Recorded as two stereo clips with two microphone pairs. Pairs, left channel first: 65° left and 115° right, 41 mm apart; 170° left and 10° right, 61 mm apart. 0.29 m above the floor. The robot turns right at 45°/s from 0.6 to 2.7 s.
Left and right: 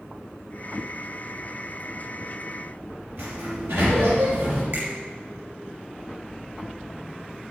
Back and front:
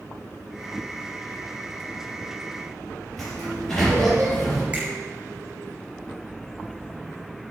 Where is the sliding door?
105° right, 5 m.